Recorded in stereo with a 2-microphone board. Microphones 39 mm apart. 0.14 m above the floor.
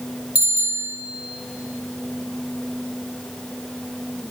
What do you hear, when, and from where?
0.3 s a bicycle bell: 35° right (ahead or behind), 2.5 m